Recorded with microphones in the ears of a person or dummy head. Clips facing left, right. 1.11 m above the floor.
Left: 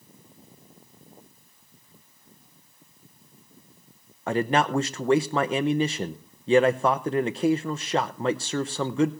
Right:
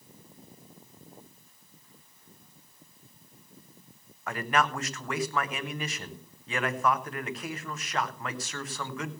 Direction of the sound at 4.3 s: 25° left (ahead or behind).